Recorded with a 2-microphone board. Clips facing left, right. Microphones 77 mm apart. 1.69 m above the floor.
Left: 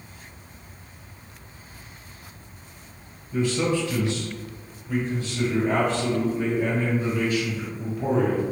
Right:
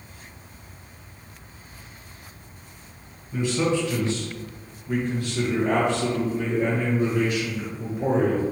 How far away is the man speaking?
About 1.6 m.